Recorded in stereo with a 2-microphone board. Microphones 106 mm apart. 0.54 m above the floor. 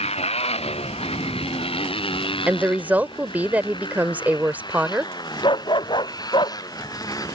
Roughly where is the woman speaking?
Centre.